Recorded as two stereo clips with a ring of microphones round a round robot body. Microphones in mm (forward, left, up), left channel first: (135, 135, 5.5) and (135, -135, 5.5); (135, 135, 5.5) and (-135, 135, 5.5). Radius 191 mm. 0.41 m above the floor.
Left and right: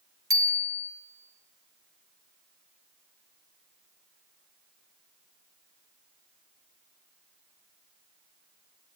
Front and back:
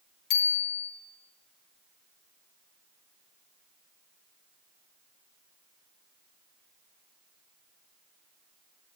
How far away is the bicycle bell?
About 3.5 m.